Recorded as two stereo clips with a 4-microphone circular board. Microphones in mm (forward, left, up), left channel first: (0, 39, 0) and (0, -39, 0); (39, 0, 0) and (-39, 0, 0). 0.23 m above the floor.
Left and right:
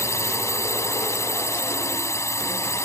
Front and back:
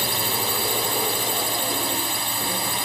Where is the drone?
90° left.